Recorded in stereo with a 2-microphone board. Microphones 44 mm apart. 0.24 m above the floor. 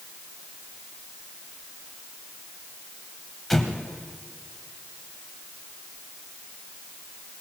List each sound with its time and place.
3.5 s an explosion: 5° left (ahead or behind), 1.2 m